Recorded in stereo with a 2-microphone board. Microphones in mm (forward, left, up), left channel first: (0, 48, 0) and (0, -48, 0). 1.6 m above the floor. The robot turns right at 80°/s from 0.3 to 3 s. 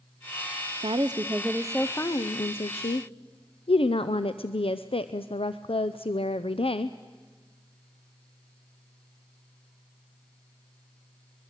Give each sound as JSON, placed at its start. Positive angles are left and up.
{"t": 0.8, "sound": "a woman speaking", "azimuth_deg": -65, "distance_m": 0.6}